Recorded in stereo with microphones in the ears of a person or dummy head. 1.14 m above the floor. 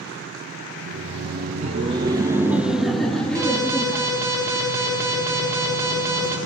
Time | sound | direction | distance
0.8 | laughter | 75° right (ahead or behind) | 0.9 m
3.4 | an alarm | 15° right (ahead or behind) | 4 m